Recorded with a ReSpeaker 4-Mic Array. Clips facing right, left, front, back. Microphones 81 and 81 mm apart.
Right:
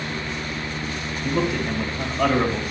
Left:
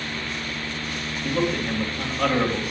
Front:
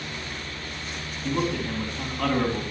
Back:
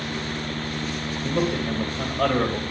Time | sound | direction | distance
1.2 | a man speaking | 170° right | 3.5 m